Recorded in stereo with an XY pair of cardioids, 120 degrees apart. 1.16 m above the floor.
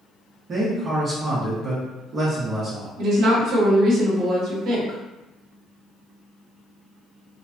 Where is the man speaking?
35° right, 1.1 m.